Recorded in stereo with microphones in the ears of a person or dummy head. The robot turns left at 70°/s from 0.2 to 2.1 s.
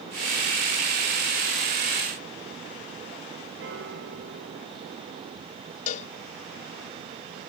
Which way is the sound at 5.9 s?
50° left (ahead or behind).